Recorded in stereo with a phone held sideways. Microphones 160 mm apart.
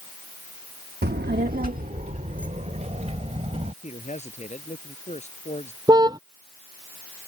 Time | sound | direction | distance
1.0 | a child speaking | 90° right | ?
3.8 | a man speaking | 45° left (ahead or behind) | ?
5.9 | a car horn | 25° right (ahead or behind) | ?